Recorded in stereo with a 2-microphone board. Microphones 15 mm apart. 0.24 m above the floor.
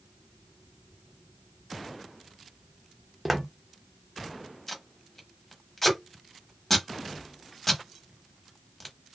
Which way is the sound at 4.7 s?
15° left (ahead or behind).